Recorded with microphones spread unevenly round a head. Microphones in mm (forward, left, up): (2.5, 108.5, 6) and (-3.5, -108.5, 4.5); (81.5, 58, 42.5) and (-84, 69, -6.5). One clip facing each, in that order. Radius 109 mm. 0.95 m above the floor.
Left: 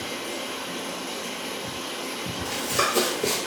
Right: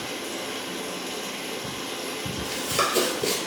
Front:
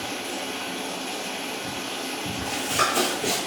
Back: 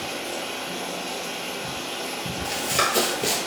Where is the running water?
80° right, 1.4 m.